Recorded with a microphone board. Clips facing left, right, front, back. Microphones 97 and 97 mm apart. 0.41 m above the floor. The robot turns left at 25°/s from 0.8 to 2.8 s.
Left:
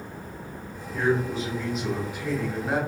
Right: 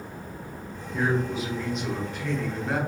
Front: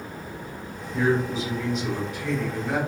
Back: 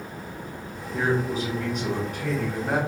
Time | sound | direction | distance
0.9 | a man speaking | 165° right | 1.1 m